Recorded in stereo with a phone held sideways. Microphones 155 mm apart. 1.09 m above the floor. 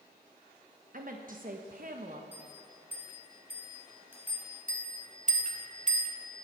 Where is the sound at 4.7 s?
55° right (ahead or behind), 1.5 m.